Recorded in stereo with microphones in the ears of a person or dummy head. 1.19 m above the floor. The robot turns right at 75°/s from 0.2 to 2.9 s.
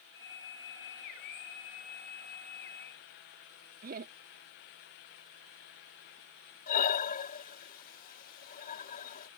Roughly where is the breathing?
Left.